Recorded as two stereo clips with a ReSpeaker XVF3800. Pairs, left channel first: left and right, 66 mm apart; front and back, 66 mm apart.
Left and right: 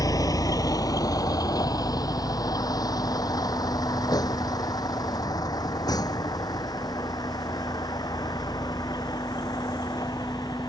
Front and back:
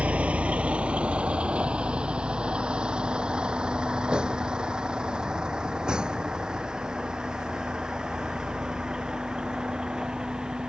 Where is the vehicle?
110° left; by 10.7 s 100° left.